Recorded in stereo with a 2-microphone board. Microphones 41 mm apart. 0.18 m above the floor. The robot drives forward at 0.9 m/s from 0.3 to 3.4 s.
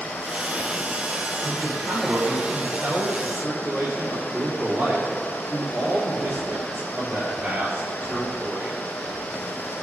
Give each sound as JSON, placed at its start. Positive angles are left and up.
{"t": 1.4, "sound": "a man speaking", "side_deg": -60, "distance_m": 3.5}